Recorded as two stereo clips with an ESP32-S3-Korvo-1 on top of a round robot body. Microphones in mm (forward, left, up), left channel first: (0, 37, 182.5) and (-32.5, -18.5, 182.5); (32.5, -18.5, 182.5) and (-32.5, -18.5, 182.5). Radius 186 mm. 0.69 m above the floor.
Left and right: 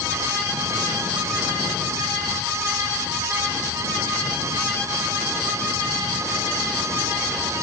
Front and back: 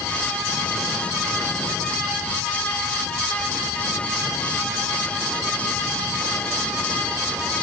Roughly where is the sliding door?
No sliding door in this recording.